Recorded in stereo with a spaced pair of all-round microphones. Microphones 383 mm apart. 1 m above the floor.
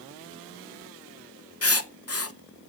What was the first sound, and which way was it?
Writing, 40° left (ahead or behind).